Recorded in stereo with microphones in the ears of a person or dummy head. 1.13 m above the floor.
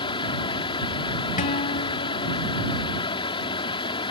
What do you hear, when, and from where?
0.0 s a fan: 25° left (ahead or behind)
1.4 s a guitar: 35° left (ahead or behind)